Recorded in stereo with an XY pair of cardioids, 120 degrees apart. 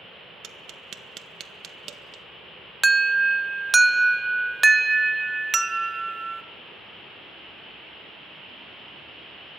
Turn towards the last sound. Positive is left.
turn(degrees=-10)